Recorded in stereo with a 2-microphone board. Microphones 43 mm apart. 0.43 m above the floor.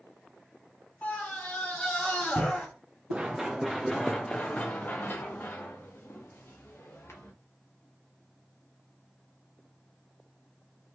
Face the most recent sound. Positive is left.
turn(degrees=65)  # may be behind; listen again after turning